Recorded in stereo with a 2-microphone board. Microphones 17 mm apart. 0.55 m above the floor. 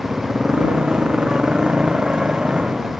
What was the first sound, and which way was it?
A motorcycle, 85° right.